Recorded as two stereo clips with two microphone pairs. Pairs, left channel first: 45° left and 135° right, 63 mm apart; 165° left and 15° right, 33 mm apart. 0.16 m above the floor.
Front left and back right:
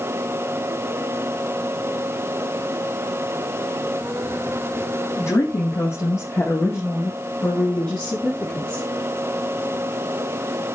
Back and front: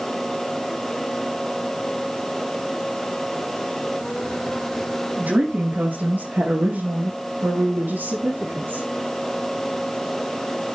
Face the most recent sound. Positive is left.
turn(degrees=-20)